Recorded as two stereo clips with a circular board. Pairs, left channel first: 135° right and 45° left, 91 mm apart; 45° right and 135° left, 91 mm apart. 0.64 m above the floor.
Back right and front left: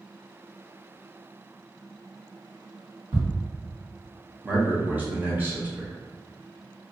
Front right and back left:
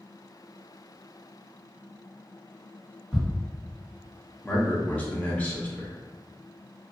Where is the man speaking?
10° left, 0.8 m.